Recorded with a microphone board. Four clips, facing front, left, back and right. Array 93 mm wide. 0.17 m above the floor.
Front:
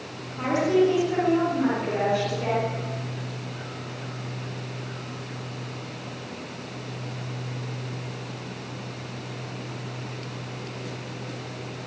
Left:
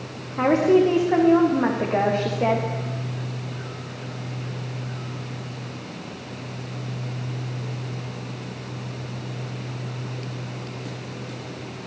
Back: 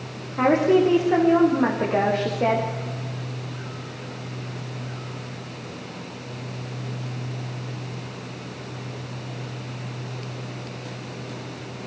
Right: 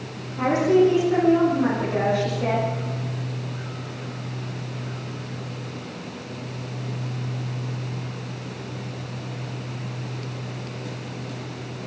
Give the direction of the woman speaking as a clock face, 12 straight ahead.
8 o'clock.